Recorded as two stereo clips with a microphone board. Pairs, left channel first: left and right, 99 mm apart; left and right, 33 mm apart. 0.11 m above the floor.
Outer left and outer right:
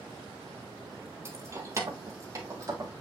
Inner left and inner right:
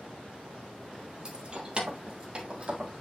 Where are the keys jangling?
25° right (ahead or behind), 1.6 m; by 2.9 s 35° right (ahead or behind), 2.5 m.